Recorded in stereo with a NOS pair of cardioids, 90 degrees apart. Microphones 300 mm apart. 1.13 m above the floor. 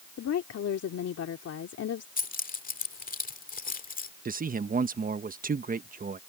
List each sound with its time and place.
0.2 s a woman speaking: 55° left
2.2 s keys jangling: 30° left
4.2 s a man speaking: 30° right